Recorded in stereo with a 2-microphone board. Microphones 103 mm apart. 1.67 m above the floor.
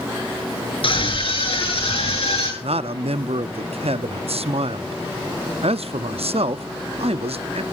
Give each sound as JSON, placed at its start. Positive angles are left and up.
{"t": 0.8, "sound": "a scream", "side_deg": 60, "distance_m": 8.0}
{"t": 2.6, "sound": "a man speaking", "side_deg": -75, "distance_m": 0.5}